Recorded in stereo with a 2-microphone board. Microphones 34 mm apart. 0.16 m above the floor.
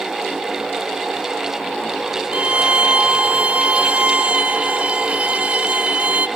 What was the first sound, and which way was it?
A violin, 35° right (ahead or behind).